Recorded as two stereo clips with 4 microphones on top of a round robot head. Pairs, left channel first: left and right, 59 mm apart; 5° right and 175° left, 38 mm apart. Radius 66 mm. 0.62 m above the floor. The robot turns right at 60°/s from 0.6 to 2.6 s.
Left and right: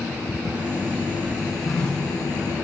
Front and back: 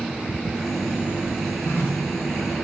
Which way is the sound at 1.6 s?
5° right.